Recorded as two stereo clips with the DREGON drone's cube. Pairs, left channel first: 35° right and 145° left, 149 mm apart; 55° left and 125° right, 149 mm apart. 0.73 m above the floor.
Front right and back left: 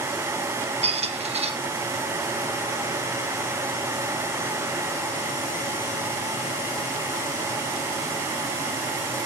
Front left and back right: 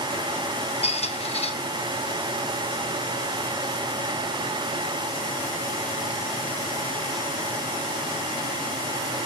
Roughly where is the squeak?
Left.